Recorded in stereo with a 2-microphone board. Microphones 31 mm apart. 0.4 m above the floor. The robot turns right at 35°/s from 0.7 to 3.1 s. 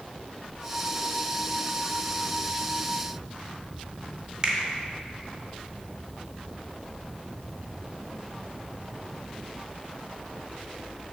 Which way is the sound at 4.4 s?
25° right (ahead or behind).